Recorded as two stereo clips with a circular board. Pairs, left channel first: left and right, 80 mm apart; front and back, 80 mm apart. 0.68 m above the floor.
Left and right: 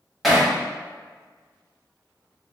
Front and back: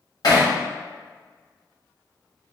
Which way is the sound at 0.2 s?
Straight ahead.